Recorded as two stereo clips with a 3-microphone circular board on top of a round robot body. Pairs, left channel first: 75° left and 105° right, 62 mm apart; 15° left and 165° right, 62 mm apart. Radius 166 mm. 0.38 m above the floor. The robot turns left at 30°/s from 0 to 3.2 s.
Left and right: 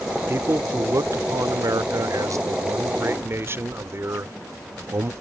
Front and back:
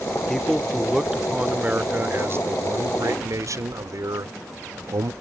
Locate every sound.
0.3 s a man speaking: 60° right; by 5.1 s 150° right